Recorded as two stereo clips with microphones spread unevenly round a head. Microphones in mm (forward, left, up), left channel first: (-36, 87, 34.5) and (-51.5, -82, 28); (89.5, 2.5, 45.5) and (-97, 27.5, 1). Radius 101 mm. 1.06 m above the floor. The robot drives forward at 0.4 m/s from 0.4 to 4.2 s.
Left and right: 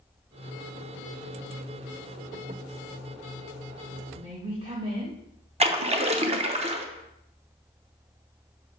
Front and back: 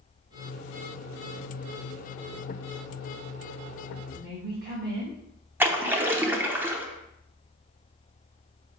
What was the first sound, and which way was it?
A woman speaking, 155° right.